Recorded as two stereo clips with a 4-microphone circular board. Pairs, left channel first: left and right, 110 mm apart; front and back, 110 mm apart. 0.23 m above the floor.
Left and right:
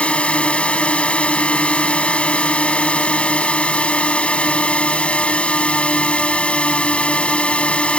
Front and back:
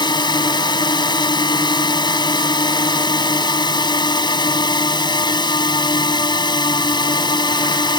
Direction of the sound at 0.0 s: 15° left.